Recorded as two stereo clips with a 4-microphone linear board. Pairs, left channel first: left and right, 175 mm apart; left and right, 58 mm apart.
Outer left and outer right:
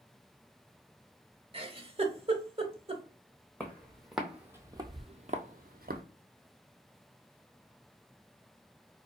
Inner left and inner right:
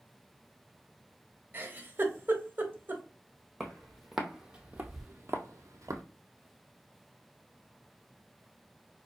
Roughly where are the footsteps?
Centre.